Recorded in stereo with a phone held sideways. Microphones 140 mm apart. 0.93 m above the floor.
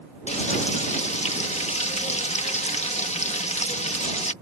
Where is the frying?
55° left (ahead or behind).